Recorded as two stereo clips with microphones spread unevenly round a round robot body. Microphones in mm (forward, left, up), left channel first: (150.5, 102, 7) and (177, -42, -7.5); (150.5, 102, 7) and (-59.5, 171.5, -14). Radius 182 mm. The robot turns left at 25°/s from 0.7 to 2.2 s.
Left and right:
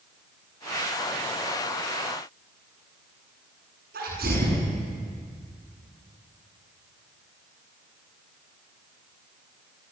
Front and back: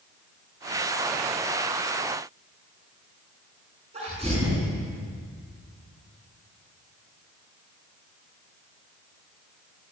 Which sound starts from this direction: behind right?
A sneeze, at 3.9 s.